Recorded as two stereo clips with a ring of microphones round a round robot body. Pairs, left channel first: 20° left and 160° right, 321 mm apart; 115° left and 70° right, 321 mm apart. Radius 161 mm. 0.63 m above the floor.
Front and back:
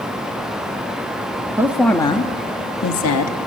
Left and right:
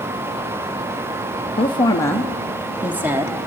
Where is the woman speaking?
140° left, 0.7 m; by 3.5 s 10° left, 1.1 m.